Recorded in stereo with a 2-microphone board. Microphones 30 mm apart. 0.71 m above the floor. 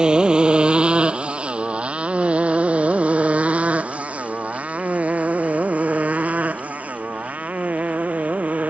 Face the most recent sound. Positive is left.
turn(degrees=-70)  # may be behind; listen again after turning